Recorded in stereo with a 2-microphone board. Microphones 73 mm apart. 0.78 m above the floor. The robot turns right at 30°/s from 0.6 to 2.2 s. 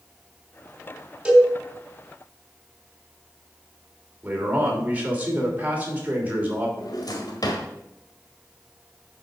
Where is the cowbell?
10° right (ahead or behind), 3 m; by 1.5 s 20° right (ahead or behind), 3 m.